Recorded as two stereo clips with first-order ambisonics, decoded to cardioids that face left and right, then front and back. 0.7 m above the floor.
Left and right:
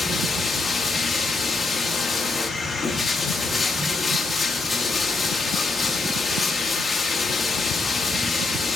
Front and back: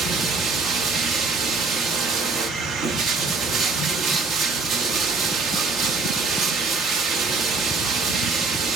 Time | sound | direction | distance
0.0 | running water | 160° left | 0.9 m